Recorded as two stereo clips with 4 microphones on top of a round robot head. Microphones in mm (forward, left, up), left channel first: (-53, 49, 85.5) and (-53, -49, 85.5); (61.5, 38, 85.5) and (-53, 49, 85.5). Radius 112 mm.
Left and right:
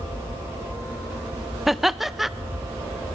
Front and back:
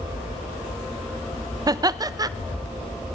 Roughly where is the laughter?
Behind.